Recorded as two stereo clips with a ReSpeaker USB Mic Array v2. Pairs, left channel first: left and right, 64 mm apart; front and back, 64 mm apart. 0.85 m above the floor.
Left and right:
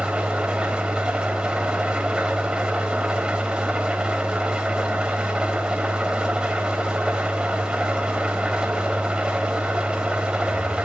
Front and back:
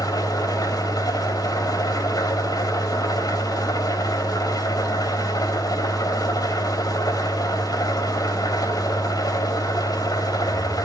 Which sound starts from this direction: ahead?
An engine running, at 0.0 s.